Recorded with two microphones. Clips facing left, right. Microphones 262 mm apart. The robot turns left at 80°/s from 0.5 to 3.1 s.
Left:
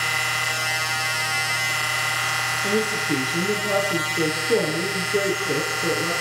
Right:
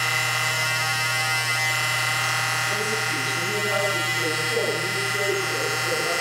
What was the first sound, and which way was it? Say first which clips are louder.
A woman speaking: left 8 dB; 85° left.